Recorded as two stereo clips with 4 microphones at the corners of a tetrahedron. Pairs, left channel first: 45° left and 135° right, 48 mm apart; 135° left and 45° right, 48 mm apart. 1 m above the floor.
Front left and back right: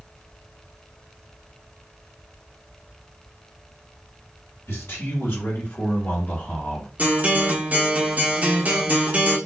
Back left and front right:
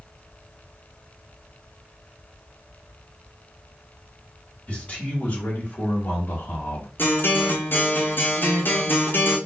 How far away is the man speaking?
About 2 m.